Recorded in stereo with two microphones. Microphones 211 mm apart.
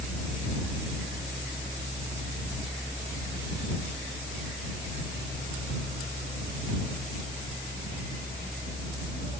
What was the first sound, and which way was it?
Only background noise.